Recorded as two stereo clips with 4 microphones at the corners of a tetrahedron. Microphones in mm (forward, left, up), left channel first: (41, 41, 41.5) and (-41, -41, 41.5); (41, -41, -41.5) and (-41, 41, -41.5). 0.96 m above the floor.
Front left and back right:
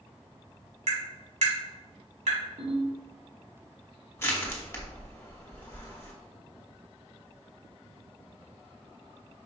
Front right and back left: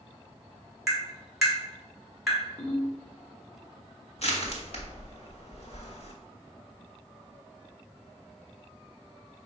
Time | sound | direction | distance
0.9 | tapping | 140° right | 2 m
2.6 | a ringtone | 120° right | 1.7 m
4.2 | crushing | 20° right | 1.1 m